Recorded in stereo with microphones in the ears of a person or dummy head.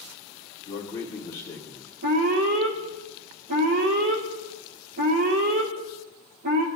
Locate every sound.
0.7 s a man speaking: 20° left (ahead or behind), 1.5 m
2.0 s an alarm: 50° right (ahead or behind), 1.3 m